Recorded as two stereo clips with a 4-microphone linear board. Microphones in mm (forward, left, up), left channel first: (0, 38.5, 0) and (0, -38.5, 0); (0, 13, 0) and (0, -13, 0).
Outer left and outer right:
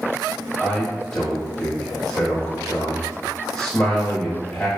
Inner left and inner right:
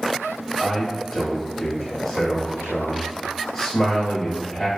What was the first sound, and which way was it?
A man speaking, 5° left (ahead or behind).